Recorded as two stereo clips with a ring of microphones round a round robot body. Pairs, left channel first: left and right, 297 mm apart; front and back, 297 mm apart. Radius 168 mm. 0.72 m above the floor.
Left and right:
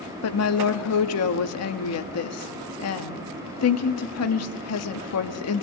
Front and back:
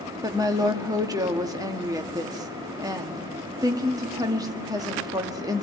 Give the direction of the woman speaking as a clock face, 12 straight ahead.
9 o'clock.